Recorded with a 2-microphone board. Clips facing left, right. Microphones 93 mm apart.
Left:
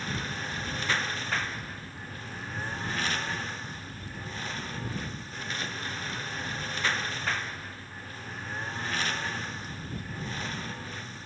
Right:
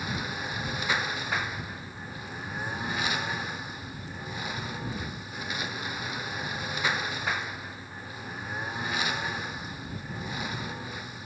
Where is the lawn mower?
10° right (ahead or behind).